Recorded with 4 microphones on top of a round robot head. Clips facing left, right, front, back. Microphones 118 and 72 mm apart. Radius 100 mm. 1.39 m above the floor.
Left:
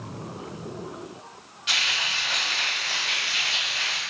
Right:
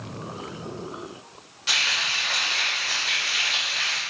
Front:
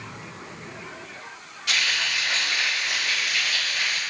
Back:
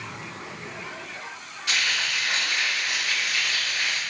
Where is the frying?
85° right, 0.8 m.